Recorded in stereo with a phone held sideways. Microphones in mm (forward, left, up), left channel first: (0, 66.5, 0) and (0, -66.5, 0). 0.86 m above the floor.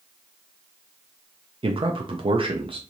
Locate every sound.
1.6 s a man speaking: 40° right (ahead or behind), 0.5 m